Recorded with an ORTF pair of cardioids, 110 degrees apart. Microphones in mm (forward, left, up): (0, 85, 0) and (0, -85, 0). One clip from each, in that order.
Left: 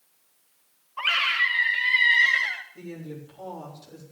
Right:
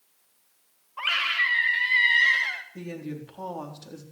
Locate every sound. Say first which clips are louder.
1.0 s a scream: left 2 dB; 5° left, 2 m; by 2.6 s 5° right, 0.9 m
2.8 s a woman speaking: right 2 dB; 65° right, 4 m